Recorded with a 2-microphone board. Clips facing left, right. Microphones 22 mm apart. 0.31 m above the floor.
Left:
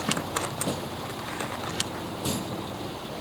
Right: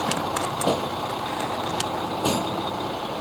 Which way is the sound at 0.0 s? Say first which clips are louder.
Right 4 dB; 80° right.